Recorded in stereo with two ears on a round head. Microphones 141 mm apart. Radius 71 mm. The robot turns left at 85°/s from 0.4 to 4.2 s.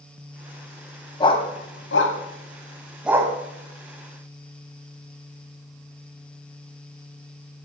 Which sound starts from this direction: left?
A dog barking, at 1.2 s.